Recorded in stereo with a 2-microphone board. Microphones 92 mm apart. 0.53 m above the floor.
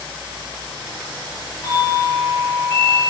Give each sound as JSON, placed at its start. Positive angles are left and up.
{"t": 1.6, "sound": "a doorbell", "side_deg": 35, "distance_m": 1.4}